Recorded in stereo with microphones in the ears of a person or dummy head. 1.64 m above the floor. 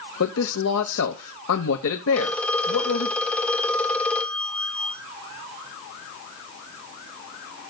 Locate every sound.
0.2 s a man speaking: 75° left (ahead or behind), 1.0 m
2.1 s a phone ringing: 10° left (ahead or behind), 1.6 m